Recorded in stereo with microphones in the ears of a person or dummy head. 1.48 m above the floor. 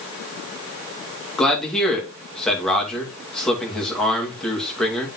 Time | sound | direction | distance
1.4 | a man speaking | centre (ahead or behind) | 2.5 m